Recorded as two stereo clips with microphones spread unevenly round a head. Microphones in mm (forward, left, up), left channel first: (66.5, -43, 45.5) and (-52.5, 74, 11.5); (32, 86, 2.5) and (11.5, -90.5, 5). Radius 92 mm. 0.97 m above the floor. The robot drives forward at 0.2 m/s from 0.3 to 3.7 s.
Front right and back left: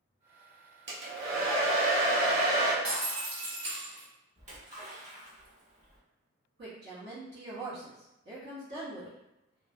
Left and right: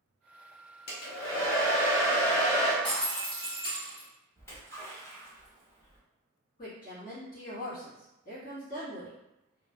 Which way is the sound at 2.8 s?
140° left.